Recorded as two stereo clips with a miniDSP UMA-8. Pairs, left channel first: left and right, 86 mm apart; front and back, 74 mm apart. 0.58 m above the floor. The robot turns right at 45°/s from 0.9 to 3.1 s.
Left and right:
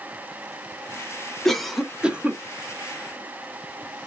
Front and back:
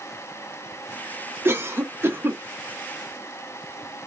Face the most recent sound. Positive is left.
turn(degrees=-115)